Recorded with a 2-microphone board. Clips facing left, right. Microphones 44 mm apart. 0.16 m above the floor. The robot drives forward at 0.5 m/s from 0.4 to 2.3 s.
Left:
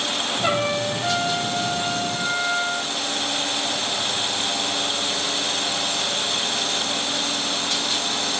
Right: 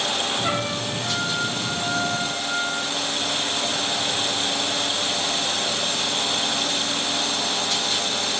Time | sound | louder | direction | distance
0.4 | a trumpet | left 3 dB | 75° left (ahead or behind) | 1.9 m